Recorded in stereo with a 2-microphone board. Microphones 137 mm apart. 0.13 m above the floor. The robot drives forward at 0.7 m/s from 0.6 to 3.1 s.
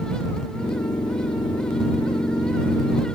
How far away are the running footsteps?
I don't hear running footsteps.